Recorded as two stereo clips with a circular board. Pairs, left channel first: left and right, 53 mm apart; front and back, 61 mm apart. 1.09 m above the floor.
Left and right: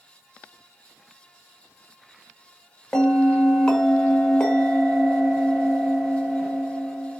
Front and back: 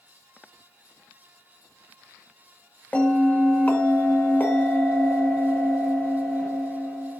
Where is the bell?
30° left, 0.9 m.